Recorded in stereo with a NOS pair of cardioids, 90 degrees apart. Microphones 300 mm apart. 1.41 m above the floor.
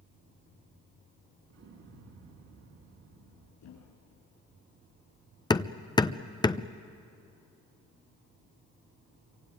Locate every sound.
1.5 s an explosion: 60° right, 3.5 m
3.6 s a thud: 70° left, 5.5 m
5.5 s hammering: 15° left, 0.6 m